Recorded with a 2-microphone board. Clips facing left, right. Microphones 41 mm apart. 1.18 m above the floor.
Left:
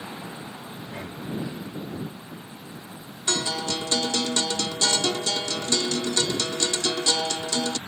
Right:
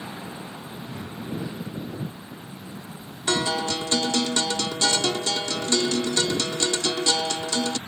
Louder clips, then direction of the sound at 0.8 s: Even; 60° left (ahead or behind).